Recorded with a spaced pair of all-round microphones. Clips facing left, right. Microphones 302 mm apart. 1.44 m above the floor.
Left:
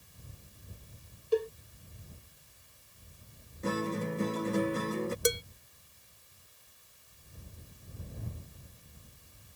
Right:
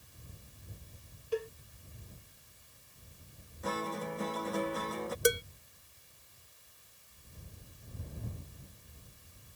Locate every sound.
1.3 s a cowbell: 45° left (ahead or behind)
3.6 s a guitar: 30° left (ahead or behind)
5.2 s dishes clattering: 20° right (ahead or behind)